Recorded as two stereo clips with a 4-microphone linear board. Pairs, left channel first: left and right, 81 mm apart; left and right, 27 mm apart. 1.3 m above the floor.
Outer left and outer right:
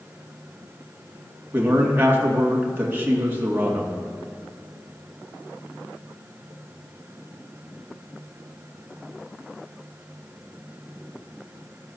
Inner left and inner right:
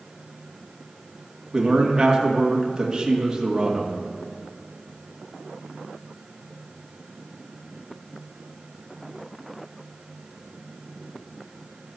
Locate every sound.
1.5 s a man speaking: 25° right (ahead or behind), 2 m